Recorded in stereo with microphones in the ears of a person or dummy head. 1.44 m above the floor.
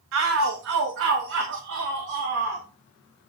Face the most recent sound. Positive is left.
turn(degrees=-60)  # may be behind; listen again after turning